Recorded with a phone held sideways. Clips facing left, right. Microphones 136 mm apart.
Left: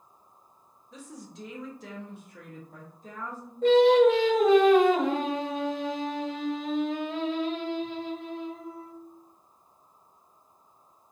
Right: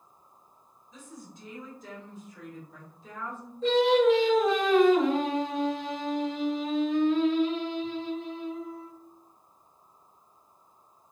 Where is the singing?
55° left (ahead or behind), 1.4 m.